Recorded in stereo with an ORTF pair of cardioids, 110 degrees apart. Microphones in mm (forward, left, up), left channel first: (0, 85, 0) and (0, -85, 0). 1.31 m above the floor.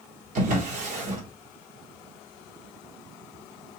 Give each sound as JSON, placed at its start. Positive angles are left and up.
{"t": 0.3, "sound": "a drawer", "azimuth_deg": -50, "distance_m": 1.7}